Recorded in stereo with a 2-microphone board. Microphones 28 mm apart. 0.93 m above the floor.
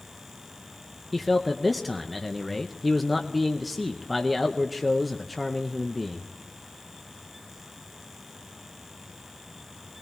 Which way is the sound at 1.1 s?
Centre (ahead or behind).